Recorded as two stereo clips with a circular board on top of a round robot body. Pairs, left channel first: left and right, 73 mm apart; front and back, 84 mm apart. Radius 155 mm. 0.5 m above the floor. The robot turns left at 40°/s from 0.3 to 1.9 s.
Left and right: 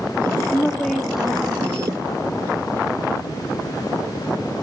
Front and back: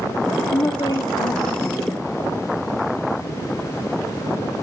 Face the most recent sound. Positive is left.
turn(degrees=-35)